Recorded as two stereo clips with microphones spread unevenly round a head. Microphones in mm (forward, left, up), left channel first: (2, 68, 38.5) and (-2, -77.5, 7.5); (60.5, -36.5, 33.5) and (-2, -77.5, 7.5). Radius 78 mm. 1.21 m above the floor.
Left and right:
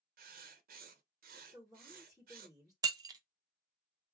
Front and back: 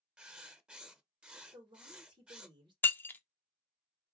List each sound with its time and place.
0.2 s writing: 70° right, 0.8 m
1.5 s a woman speaking: straight behind, 1.6 m
2.8 s breaking glass: 20° right, 0.6 m